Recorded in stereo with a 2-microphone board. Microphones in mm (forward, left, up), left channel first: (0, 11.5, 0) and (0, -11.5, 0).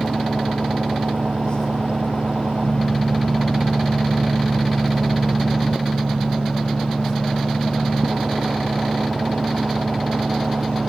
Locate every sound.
0.0 s an engine running: 70° right (ahead or behind)